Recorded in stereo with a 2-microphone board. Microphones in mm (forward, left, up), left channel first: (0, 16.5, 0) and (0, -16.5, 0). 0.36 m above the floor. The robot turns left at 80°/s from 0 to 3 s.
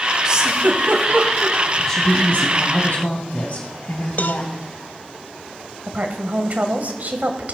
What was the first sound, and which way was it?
A giggle, 20° right (ahead or behind).